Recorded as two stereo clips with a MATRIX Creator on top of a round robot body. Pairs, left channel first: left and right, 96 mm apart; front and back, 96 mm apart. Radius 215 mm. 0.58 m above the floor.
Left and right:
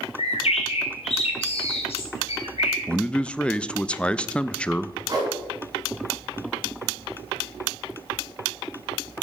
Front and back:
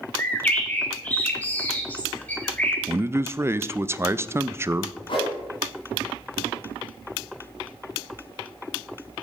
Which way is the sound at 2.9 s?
155° left.